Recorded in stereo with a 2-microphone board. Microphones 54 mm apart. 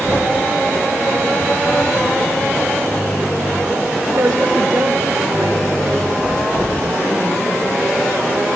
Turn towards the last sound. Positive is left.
turn(degrees=-65)  # may be behind; listen again after turning